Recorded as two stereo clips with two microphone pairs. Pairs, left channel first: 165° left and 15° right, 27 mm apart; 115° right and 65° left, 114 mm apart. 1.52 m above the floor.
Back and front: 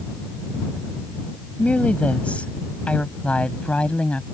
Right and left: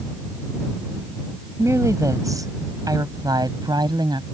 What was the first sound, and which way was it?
A woman speaking, 130° left.